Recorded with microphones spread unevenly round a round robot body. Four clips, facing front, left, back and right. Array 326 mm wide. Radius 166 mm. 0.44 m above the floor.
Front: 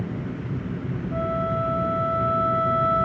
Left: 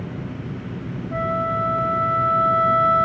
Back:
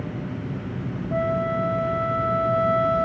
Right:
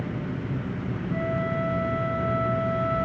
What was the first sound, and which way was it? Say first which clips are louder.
A flute: left 5 dB, back 2 dB; 155° left.